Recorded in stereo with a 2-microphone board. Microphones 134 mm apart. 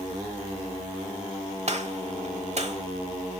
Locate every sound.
1.7 s a gunshot: 55° right (ahead or behind), 1.1 m